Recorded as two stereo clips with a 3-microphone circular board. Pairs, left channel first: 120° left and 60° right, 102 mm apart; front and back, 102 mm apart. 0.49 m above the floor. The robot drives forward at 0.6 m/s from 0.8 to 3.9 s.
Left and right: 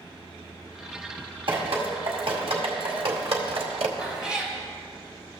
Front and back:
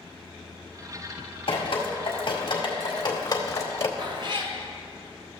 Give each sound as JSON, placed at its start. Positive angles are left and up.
{"t": 1.5, "sound": "dripping", "azimuth_deg": -30, "distance_m": 2.5}
{"t": 4.0, "sound": "a cat meowing", "azimuth_deg": -140, "distance_m": 1.3}